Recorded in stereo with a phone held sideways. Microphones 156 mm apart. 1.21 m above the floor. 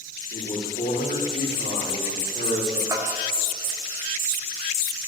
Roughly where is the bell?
Centre.